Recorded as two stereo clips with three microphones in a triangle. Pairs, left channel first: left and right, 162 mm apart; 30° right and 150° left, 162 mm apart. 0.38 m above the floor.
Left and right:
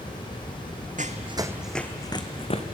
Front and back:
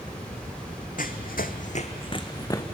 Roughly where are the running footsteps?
Ahead right.